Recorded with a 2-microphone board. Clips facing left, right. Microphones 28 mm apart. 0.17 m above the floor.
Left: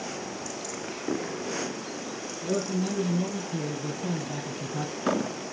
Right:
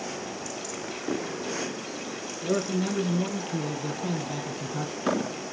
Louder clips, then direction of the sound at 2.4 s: Right 2 dB; 60° right (ahead or behind).